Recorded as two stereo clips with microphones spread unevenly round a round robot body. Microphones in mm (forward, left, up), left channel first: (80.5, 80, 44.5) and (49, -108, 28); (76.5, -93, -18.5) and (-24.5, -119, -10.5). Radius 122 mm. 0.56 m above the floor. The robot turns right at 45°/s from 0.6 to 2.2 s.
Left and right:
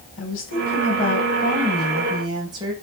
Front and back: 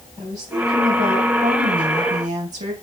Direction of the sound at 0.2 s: 115° left.